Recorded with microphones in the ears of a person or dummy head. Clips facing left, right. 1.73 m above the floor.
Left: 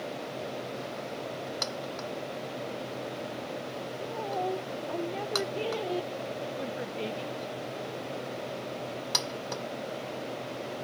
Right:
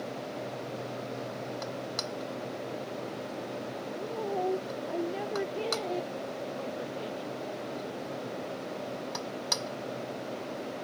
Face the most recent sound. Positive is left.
turn(degrees=35)  # may be behind; listen again after turning